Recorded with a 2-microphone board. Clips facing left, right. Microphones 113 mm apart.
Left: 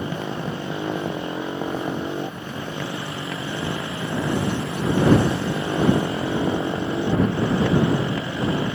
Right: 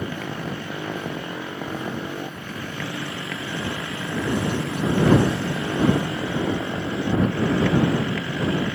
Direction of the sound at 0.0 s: 20° left (ahead or behind).